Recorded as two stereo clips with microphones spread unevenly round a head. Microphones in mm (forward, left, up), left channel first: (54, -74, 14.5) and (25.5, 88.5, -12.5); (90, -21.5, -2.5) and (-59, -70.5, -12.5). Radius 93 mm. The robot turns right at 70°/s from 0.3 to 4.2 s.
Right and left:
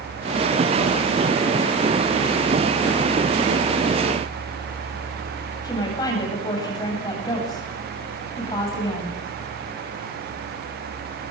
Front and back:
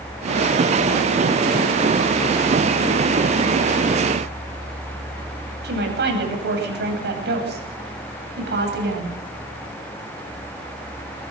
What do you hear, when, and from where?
5.6 s a woman speaking: 150° right, 9 m